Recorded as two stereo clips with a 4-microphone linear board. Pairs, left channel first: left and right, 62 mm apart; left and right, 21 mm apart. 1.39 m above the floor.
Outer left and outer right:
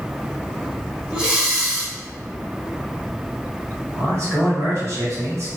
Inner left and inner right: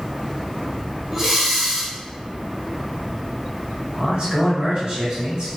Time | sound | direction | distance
1.1 | breathing | 15° right (ahead or behind) | 0.6 m
4.0 | a man speaking | 50° right (ahead or behind) | 1.1 m